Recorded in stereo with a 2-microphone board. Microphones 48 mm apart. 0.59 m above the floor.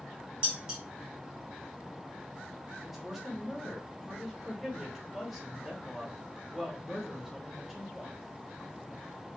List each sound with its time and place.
0.4 s dishes clattering: 20° right (ahead or behind), 1.1 m
2.8 s a woman speaking: 5° right (ahead or behind), 0.8 m